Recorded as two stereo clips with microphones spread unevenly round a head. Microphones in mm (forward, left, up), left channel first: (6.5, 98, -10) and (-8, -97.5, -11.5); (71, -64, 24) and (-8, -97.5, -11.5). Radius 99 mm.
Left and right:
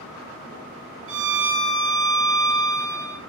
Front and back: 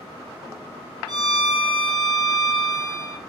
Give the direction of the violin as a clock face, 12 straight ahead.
4 o'clock.